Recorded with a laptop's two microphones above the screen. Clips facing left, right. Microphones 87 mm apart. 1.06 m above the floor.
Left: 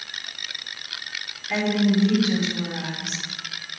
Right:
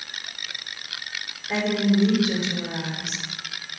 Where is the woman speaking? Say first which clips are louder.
Left 1 dB; 30° right (ahead or behind), 2.5 m.